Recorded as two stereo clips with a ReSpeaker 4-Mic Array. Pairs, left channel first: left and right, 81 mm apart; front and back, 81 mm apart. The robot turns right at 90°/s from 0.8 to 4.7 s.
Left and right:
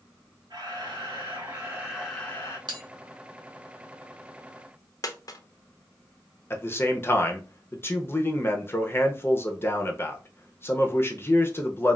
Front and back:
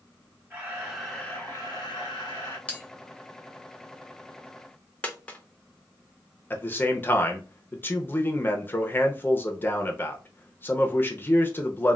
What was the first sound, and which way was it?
A camera shutter, 115° right.